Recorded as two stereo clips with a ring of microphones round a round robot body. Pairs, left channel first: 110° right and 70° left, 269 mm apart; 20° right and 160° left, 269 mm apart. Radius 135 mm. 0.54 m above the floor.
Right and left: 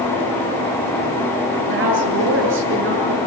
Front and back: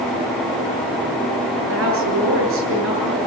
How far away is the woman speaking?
About 10 m.